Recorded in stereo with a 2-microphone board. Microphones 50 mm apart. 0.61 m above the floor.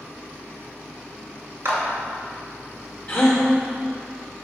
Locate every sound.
1.6 s a clap: 60° right (ahead or behind), 1.6 m
3.1 s a gasp: 25° left (ahead or behind), 1.4 m